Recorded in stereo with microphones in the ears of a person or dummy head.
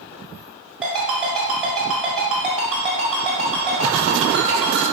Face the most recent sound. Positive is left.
turn(degrees=-5)  # may be behind; listen again after turning